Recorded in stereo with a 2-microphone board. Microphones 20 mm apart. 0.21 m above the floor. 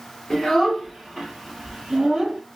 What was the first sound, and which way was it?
A child speaking, 25° left (ahead or behind).